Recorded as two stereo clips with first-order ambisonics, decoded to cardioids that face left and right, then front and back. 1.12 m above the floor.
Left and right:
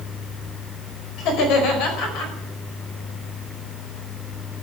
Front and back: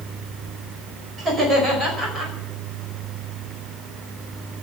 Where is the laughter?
120° left, 5 m; by 2.3 s 110° left, 5.5 m.